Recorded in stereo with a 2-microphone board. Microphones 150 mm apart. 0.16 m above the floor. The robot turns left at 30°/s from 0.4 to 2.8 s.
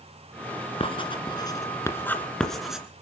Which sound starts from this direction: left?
Writing, at 0.8 s.